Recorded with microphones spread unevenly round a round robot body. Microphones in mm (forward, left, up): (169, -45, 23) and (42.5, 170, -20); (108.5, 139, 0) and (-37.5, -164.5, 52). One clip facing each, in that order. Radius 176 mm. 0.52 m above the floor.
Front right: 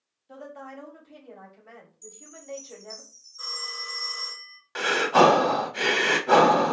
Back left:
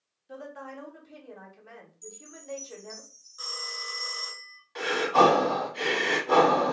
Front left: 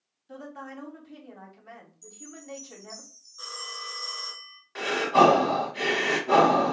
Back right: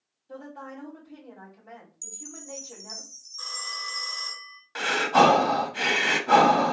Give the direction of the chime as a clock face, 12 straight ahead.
5 o'clock.